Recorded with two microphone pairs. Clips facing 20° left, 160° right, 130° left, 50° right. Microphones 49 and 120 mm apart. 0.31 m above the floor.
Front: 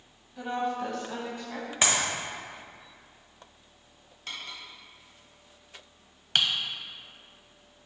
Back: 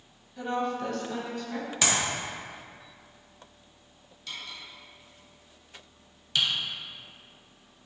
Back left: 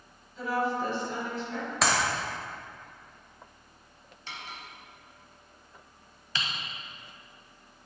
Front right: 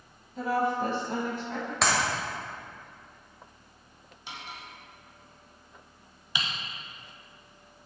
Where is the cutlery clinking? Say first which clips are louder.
Front 1 dB, even; 20° left, 1.0 m.